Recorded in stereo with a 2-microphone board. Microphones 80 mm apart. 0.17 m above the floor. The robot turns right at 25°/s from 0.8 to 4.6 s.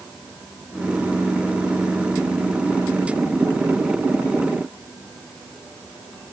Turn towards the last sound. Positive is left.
No sound to turn to.